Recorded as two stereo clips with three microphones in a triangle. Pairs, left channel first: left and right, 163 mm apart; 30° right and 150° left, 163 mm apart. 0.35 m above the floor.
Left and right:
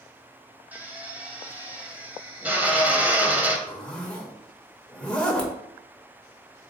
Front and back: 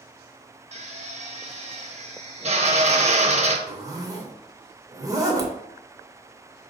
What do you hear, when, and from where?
0.7 s a drill: 165° right, 0.5 m
3.7 s a zipper: 160° left, 0.6 m